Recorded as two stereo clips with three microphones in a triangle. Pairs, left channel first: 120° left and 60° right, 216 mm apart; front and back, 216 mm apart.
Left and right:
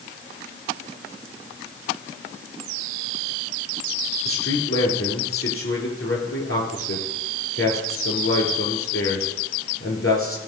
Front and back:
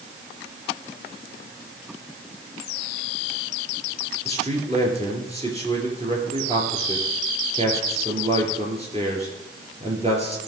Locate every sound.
4.2 s a man speaking: 120° left, 3.5 m